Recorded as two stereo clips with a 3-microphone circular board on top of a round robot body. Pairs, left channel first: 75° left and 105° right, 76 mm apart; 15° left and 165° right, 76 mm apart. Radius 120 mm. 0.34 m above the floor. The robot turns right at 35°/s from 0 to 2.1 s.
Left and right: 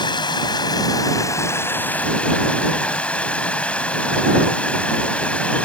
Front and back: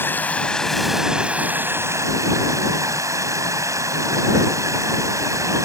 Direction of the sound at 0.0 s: 75° left.